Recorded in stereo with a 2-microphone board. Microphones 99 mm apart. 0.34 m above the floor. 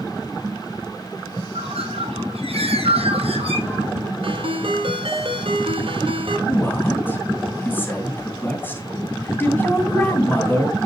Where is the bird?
85° right, 2 m.